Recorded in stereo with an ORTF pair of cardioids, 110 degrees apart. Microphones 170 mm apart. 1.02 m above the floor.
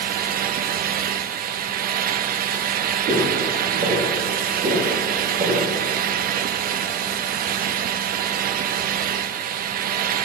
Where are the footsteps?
50° right, 5.5 m.